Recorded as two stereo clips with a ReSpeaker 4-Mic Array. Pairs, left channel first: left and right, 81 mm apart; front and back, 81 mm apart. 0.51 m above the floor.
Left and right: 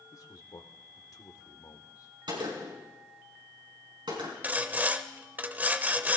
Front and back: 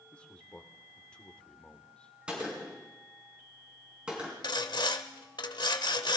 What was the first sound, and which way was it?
A man speaking, 75° left.